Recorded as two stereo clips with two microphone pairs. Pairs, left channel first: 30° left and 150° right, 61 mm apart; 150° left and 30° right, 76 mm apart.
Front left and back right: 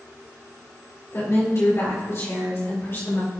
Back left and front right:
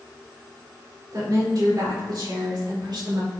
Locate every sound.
1.1 s a woman speaking: 5° right, 4 m; by 3.3 s 20° right, 5 m